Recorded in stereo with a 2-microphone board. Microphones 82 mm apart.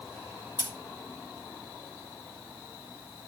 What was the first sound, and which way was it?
Scissors, 80° left.